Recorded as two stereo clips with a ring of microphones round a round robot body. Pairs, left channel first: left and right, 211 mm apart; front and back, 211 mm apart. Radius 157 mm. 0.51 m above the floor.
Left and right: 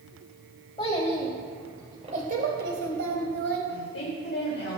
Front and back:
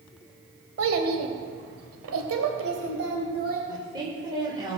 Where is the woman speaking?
115° left, 2.5 m.